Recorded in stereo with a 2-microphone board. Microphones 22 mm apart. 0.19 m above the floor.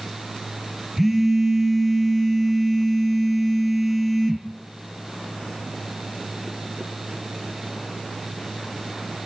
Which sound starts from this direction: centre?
A phone buzzing, at 1.0 s.